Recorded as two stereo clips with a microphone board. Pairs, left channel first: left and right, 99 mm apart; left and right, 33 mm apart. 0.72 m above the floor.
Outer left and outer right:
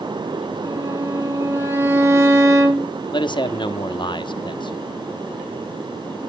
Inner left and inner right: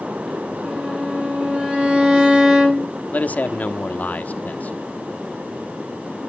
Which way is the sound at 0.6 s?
30° right (ahead or behind).